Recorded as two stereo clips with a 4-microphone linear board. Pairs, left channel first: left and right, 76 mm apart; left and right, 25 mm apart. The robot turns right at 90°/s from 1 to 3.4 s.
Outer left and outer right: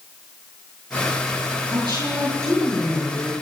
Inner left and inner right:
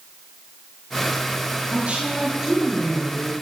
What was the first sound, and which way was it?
A woman speaking, 100° right.